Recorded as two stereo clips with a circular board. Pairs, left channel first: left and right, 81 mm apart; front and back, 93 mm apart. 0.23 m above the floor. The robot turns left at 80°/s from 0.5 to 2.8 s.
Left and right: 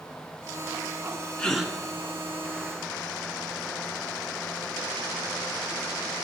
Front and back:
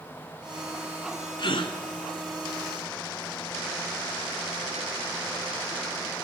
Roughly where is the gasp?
Ahead.